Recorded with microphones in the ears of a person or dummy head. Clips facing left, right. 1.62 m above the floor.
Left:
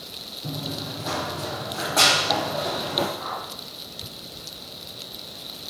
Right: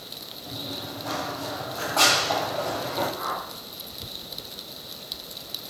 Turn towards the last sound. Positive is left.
turn(degrees=-55)  # may be behind; listen again after turning